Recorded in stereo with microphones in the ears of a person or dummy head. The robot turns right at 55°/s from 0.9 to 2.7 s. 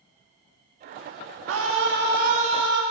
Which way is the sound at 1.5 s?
100° right.